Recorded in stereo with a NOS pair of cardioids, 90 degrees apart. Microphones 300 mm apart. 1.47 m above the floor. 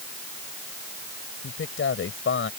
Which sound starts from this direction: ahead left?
A man speaking, at 1.4 s.